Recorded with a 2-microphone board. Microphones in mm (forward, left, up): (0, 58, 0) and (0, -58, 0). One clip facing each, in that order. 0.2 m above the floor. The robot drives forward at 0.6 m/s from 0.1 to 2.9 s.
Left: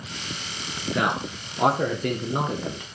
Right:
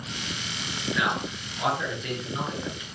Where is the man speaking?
50° left (ahead or behind), 2.5 m; by 2.9 s 60° left (ahead or behind), 2 m.